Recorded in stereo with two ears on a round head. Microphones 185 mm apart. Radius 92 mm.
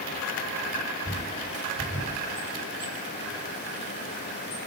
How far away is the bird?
About 9.5 m.